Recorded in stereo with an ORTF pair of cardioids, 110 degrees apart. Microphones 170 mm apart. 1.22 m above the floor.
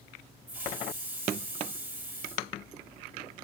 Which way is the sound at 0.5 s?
10° right.